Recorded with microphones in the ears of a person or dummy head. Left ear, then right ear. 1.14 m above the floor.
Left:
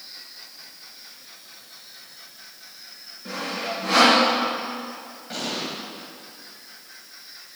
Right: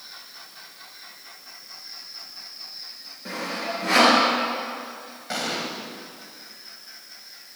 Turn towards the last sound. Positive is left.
turn(degrees=-35)  # may be behind; listen again after turning